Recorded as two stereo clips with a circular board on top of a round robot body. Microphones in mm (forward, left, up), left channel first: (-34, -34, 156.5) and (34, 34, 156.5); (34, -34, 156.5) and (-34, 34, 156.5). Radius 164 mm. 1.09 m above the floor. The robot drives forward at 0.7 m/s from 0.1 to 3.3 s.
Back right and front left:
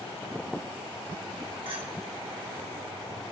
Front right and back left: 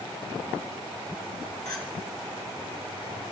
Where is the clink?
10° left, 1.0 m; by 1.8 s 15° left, 0.9 m.